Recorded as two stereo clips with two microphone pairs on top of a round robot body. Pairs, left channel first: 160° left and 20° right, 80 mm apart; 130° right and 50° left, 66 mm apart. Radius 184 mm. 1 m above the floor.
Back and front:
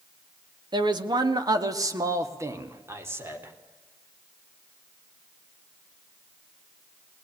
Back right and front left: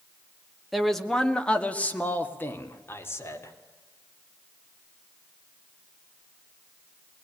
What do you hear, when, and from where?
0.7 s a man speaking: 40° right, 2 m; by 3.5 s 80° right, 4 m